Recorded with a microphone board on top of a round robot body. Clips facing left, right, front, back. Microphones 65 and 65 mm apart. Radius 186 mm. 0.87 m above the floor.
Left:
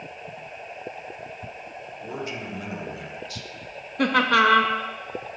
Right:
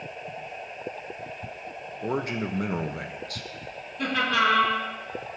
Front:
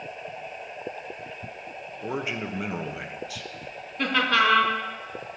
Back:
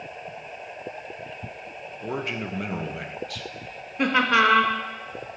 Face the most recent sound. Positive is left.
turn(degrees=110)